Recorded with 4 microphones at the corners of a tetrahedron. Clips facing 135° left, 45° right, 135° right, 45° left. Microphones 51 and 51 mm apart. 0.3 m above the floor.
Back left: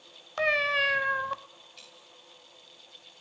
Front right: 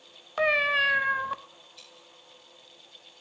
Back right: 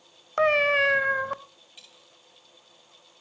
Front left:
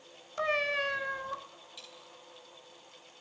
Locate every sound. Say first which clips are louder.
0.4 s a cat meowing: front right 2 dB, back right 10 dB; 130° right, 0.6 m
1.8 s a dropped coin: even, front left 1 dB; 165° left, 7 m